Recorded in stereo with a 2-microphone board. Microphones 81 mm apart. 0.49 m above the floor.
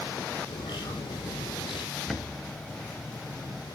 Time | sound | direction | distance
0.5 | a bird | 75° left (ahead or behind) | 4 m
1.9 | a bird | 5° left (ahead or behind) | 1.7 m